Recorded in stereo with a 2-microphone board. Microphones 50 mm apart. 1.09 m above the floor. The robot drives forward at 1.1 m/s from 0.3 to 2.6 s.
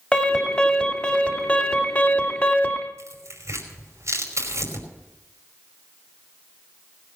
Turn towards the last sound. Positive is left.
turn(degrees=-75)  # may be behind; listen again after turning